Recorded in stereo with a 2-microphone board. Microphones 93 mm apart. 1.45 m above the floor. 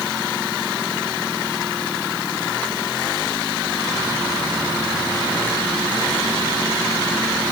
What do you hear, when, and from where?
Only background noise.